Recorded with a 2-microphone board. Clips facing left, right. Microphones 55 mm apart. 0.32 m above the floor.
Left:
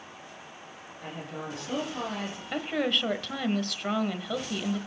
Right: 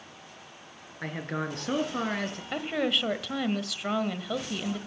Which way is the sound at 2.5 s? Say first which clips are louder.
Even; 5° right (ahead or behind).